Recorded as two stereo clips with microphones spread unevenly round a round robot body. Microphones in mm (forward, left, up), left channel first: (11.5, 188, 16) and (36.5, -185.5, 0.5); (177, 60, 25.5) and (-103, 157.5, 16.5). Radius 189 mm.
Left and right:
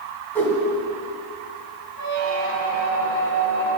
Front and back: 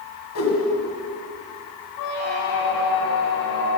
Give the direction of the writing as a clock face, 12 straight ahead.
No writing in this recording.